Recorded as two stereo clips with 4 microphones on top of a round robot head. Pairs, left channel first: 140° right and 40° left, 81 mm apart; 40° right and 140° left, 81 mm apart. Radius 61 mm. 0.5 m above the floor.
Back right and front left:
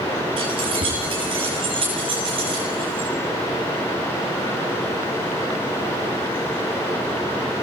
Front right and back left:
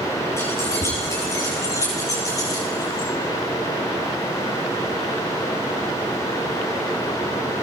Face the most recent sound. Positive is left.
turn(degrees=10)